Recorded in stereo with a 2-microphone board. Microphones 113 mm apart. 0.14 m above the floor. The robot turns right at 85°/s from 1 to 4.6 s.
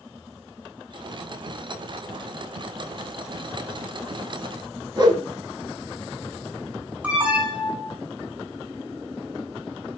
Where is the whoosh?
40° right (ahead or behind), 1.2 m.